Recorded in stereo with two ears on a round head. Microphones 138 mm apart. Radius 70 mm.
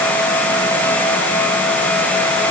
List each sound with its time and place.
Only background noise.